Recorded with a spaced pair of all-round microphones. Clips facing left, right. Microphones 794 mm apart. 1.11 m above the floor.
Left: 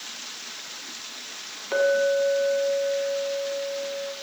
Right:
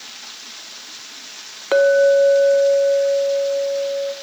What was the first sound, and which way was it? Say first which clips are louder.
A clink: right 9 dB; 75° right (ahead or behind).